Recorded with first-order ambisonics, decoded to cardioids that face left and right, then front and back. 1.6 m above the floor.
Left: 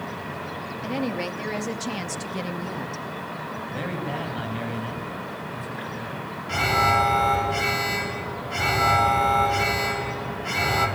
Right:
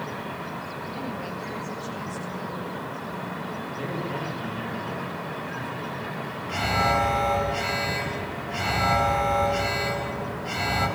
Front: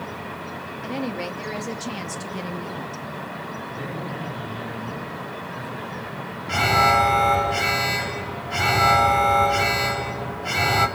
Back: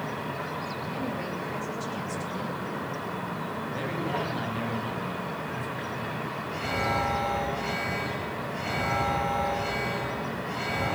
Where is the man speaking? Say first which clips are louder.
Left 1 dB, back 1 dB; 115° left, 9 m.